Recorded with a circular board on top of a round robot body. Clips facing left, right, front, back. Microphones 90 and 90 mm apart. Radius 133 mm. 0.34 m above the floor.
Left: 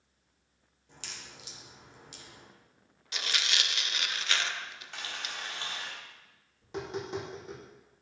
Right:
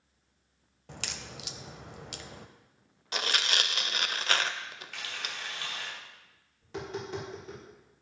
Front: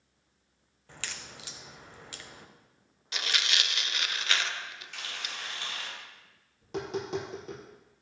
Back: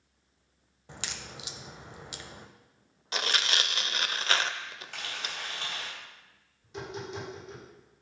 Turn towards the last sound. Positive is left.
turn(degrees=20)